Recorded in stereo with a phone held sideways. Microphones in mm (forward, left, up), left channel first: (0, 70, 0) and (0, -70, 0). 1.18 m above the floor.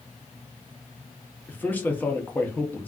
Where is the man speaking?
10° left (ahead or behind), 0.7 m.